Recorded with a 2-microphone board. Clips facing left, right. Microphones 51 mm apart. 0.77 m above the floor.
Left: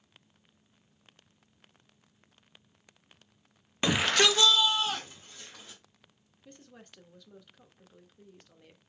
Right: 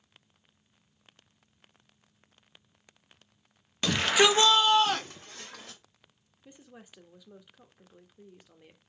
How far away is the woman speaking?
About 0.8 m.